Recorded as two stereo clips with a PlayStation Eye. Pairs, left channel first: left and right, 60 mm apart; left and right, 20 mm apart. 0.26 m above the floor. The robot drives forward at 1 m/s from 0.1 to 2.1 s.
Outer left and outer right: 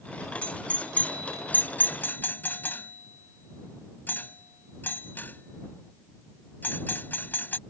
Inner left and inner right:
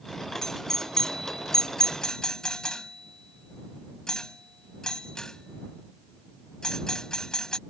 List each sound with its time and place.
0.4 s a doorbell: 20° left (ahead or behind); by 7.6 s 35° left (ahead or behind)